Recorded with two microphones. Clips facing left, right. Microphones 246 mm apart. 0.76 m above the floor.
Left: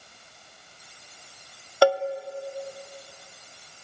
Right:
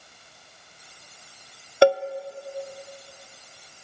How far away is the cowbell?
About 0.6 m.